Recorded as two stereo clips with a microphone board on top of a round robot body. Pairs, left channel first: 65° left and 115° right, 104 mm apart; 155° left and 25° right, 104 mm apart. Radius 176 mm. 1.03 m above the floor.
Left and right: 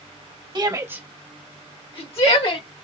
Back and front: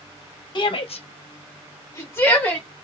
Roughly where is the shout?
Behind.